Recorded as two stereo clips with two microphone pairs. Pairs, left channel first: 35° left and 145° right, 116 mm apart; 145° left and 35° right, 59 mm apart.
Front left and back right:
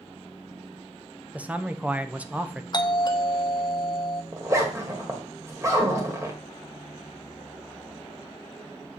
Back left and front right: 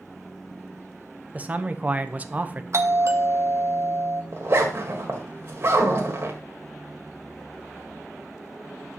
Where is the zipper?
80° right, 1.8 m.